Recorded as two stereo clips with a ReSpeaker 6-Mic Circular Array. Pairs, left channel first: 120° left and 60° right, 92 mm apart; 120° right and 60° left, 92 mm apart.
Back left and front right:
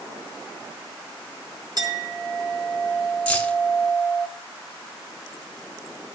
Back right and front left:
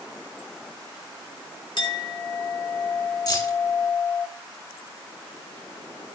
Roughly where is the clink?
Right.